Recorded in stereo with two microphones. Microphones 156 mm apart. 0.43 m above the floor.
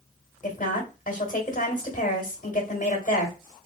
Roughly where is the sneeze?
I don't hear a sneeze.